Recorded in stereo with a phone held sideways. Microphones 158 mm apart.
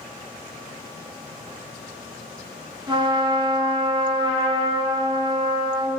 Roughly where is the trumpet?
Right.